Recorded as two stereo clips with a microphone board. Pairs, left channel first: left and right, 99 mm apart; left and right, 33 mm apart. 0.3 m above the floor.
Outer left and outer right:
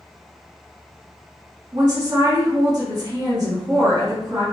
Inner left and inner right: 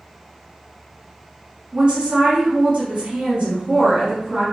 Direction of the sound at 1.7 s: 35° right (ahead or behind).